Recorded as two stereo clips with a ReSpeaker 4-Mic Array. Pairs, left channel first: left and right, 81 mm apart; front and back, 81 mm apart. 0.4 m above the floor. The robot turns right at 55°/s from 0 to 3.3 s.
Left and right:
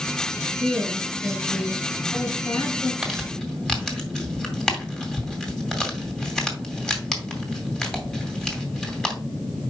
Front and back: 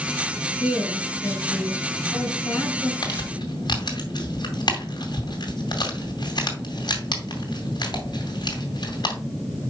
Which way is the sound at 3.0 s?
5° right.